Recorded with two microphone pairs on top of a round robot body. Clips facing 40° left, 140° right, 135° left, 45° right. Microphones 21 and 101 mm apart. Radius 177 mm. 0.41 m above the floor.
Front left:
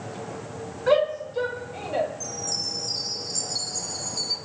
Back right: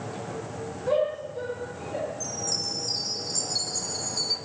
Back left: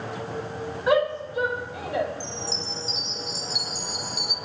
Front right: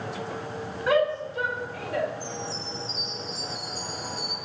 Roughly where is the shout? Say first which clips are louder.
Front left 4 dB, back left 1 dB; ahead left.